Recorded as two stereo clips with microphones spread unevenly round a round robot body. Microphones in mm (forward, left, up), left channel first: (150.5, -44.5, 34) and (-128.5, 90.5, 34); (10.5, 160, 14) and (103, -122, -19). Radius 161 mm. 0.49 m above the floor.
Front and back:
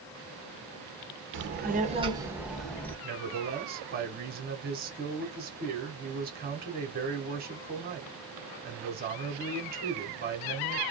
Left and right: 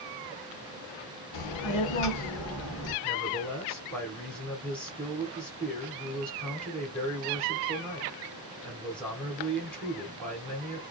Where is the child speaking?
105° left, 1.0 m; by 2.9 s 55° left, 1.2 m.